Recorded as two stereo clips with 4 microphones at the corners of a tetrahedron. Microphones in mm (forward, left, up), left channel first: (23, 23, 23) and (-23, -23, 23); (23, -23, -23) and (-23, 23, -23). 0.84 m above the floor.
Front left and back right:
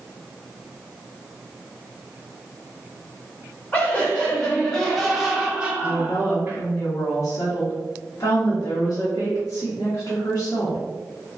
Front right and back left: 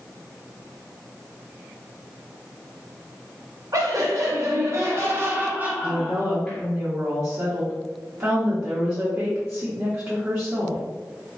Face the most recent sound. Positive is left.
turn(degrees=85)